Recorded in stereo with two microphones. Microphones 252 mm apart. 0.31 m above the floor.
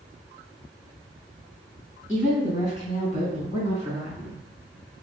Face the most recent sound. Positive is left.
turn(degrees=25)  # may be behind; listen again after turning